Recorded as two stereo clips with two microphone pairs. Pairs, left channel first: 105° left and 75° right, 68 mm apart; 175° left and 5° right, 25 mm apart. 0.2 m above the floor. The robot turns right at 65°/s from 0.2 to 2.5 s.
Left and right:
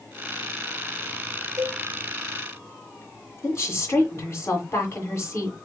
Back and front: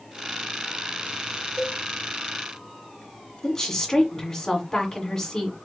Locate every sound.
1.6 s a cowbell: 105° right, 2.5 m; by 1.8 s 90° right, 2.5 m
3.4 s a woman speaking: 125° left, 1.8 m